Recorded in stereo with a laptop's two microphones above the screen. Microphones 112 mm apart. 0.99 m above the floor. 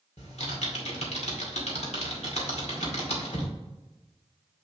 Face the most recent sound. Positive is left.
turn(degrees=85)